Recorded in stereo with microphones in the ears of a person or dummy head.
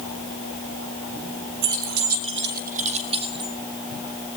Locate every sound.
1.6 s keys jangling: 55° right (ahead or behind), 1.1 m; by 3.5 s 25° right (ahead or behind), 2.5 m